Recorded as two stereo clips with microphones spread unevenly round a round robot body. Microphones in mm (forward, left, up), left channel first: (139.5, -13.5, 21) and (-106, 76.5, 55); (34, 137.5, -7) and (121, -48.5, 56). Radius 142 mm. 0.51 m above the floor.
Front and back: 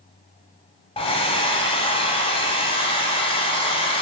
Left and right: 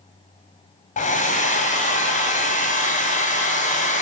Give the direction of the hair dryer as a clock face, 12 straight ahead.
10 o'clock.